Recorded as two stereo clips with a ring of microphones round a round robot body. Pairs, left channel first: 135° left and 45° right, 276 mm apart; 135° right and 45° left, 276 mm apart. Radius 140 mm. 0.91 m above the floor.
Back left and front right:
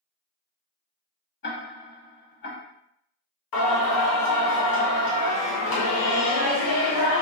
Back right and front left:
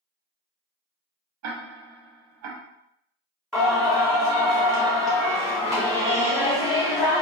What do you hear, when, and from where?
1.4 s ticking: 80° left, 1.0 m
3.5 s singing: 135° left, 1.8 m